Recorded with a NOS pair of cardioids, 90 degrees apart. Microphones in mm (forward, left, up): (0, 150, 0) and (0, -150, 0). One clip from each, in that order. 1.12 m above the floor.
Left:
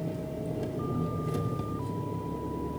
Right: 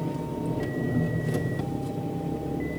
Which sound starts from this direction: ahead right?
An engine running, at 0.0 s.